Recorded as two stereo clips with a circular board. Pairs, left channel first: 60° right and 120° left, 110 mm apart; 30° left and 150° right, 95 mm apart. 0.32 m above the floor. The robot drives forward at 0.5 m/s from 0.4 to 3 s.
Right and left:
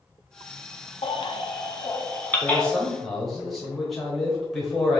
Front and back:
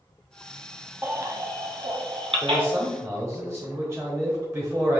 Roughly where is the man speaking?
Behind right.